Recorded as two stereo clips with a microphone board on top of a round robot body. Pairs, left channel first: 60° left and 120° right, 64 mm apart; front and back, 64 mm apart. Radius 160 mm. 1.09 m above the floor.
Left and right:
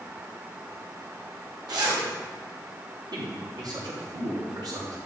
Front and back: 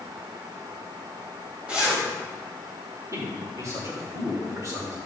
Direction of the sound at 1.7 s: 105° right.